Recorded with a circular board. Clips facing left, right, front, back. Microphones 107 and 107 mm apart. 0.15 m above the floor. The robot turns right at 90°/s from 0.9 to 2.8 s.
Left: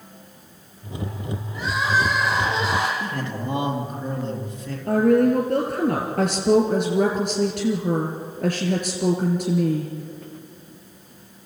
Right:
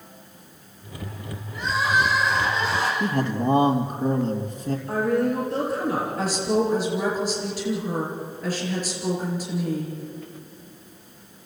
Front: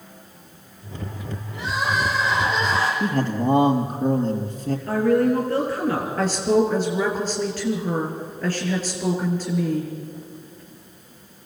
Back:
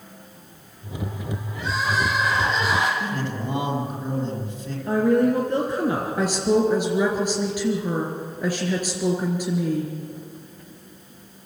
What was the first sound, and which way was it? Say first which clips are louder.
Crying: even, front 1 dB; 5° right.